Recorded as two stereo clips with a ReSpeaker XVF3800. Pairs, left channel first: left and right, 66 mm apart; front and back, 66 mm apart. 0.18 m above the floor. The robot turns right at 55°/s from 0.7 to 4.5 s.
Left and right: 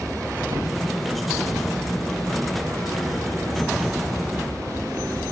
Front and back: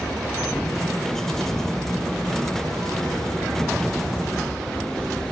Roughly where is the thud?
Ahead right.